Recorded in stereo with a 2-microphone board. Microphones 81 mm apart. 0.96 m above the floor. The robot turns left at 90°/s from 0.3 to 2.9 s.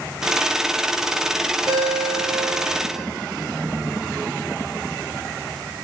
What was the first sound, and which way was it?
A ringtone, 65° right.